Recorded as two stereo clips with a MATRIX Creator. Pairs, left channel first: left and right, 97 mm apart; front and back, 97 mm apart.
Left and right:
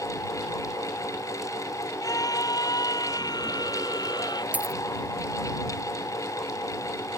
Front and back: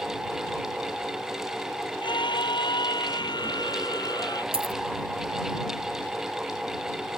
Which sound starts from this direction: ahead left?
A scream, at 2.0 s.